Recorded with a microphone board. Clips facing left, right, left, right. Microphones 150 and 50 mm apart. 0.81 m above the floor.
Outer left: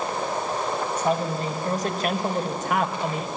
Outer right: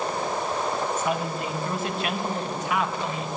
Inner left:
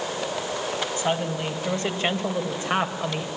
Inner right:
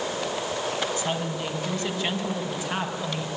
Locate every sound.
1.0 s a woman speaking: 30° left (ahead or behind), 5.5 m; by 3.3 s 50° left (ahead or behind), 4 m